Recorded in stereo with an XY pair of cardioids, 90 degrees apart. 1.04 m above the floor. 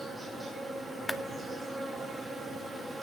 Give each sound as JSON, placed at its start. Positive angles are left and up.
{"t": 0.0, "sound": "an insect", "azimuth_deg": -15, "distance_m": 3.5}
{"t": 1.1, "sound": "a clap", "azimuth_deg": 20, "distance_m": 0.6}